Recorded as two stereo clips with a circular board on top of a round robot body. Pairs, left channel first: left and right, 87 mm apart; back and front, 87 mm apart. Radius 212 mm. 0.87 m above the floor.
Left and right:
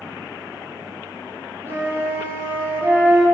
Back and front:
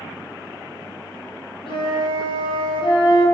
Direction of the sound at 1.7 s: 155° right.